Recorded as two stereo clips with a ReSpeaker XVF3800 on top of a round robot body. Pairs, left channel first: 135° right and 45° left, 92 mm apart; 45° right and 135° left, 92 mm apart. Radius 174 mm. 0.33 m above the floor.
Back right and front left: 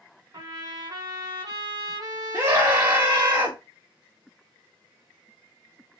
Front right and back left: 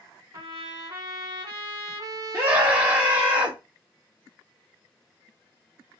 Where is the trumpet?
95° left, 1.6 m.